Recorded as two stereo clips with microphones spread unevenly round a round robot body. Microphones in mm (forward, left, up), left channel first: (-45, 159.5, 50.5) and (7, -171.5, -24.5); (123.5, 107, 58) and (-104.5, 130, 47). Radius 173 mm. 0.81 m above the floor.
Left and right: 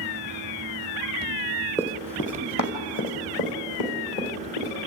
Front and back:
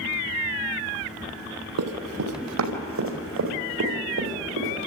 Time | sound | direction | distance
1.8 | running footsteps | 175° left | 1.8 m